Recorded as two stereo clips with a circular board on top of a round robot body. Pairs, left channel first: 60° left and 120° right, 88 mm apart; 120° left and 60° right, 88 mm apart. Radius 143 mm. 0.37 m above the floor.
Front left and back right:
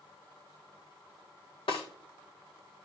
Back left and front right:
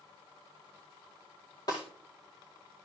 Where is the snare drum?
75° left, 4 m.